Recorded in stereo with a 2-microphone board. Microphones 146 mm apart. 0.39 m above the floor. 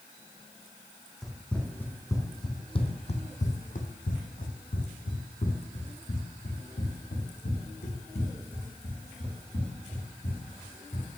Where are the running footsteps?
Centre (ahead or behind), 1.5 m; by 11.1 s 65° left (ahead or behind), 5 m.